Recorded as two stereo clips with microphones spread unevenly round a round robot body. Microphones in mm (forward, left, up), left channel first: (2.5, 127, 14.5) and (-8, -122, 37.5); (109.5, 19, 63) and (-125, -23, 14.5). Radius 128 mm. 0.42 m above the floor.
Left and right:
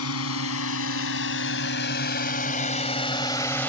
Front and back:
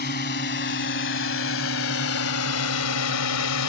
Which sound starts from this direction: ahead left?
A drone, at 0.0 s.